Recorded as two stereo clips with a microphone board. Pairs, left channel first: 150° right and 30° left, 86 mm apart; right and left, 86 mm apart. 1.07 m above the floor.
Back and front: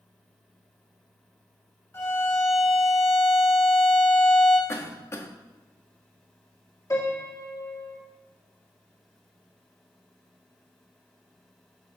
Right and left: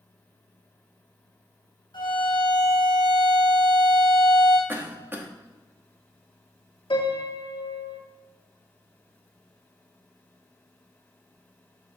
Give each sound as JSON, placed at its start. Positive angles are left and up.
{"t": 1.9, "sound": "a violin", "azimuth_deg": -85, "distance_m": 3.0}
{"t": 4.7, "sound": "a cough", "azimuth_deg": 155, "distance_m": 1.4}
{"t": 6.9, "sound": "a piano", "azimuth_deg": -95, "distance_m": 2.0}